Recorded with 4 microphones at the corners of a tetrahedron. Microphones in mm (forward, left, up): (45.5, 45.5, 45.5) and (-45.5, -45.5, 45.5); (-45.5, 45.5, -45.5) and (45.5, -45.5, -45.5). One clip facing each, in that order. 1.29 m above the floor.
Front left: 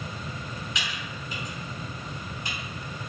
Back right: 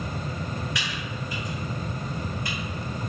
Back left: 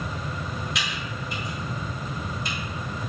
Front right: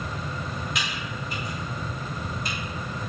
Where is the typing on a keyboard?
15° right, 1.5 m.